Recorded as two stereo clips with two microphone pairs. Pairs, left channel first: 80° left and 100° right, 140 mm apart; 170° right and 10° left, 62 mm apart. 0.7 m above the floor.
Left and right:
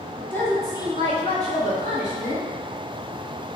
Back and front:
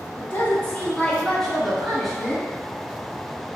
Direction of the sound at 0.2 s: 160° left.